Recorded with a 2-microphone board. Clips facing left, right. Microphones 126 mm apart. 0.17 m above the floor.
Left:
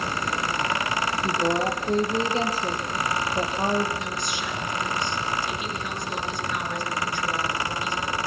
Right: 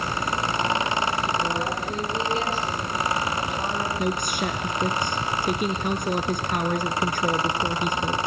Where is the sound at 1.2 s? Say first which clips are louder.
Left 2 dB; 40° left (ahead or behind), 5.5 m.